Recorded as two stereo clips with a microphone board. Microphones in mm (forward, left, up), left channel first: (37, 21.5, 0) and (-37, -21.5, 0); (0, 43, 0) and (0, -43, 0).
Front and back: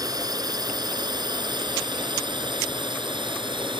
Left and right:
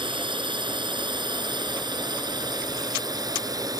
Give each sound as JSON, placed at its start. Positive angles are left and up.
{"t": 0.0, "sound": "a drone", "azimuth_deg": -110}